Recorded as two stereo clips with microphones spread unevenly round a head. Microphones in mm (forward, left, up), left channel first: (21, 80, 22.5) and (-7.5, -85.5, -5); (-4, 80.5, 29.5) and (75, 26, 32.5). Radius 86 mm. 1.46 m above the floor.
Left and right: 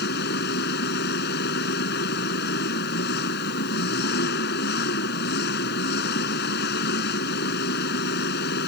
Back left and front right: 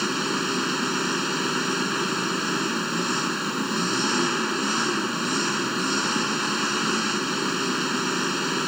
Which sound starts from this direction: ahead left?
An engine running, at 0.0 s.